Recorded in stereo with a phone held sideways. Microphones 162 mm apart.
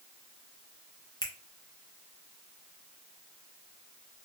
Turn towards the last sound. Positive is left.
turn(degrees=30)  # may be behind; listen again after turning